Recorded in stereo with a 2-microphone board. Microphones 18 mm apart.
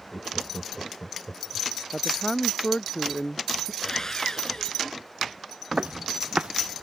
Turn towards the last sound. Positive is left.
turn(degrees=-60)  # may be behind; listen again after turning